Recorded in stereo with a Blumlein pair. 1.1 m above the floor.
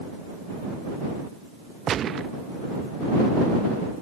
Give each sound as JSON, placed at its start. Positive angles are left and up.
{"t": 1.9, "sound": "a gunshot", "azimuth_deg": -25}